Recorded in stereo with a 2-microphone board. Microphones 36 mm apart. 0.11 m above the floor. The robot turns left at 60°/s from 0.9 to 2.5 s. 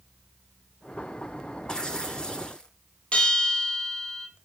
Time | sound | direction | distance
1.7 | tearing paper | 20° left (ahead or behind) | 1.6 m
3.1 | a bell | 25° left (ahead or behind) | 2 m